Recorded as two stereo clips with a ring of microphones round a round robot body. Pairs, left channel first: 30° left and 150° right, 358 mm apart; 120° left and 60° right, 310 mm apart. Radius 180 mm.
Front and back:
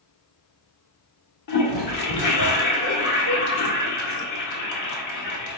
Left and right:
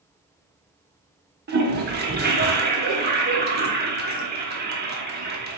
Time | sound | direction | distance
1.5 | a toilet flushing | 5° right | 1.2 m